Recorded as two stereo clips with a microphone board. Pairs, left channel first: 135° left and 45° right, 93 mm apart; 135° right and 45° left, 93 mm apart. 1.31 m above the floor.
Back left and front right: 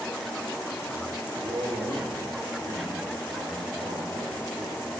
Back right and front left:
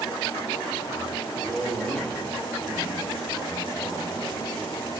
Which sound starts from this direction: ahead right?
A man speaking, at 1.4 s.